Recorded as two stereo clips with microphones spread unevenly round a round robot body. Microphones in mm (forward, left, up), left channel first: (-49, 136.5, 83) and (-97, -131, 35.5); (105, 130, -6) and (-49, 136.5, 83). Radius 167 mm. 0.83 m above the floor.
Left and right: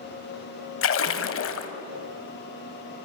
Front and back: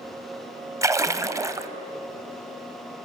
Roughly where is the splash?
Behind left.